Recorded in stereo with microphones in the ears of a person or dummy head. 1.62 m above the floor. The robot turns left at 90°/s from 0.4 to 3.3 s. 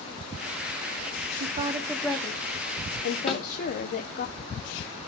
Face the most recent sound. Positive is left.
turn(degrees=0)  # may be behind; listen again after turning